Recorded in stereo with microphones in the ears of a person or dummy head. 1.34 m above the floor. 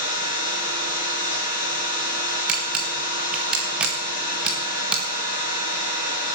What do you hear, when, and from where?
0.0 s an engine running: 35° left (ahead or behind), 5 m
2.5 s a camera shutter: 5° right (ahead or behind), 1.9 m